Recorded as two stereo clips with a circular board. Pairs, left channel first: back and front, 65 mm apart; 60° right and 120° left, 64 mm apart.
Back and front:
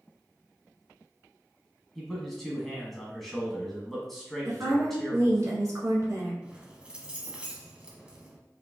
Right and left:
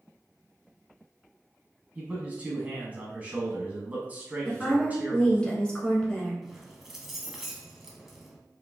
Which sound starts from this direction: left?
A man speaking, at 1.9 s.